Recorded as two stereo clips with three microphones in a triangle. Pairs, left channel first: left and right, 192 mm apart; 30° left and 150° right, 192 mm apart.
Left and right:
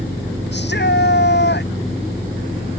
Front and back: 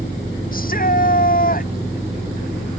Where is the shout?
70° left.